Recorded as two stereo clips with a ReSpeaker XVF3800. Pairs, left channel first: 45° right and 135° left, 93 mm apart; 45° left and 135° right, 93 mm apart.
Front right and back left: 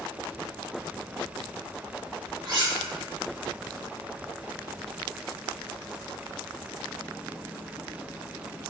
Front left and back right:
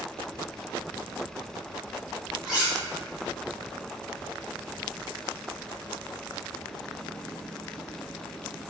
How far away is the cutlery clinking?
About 1.4 m.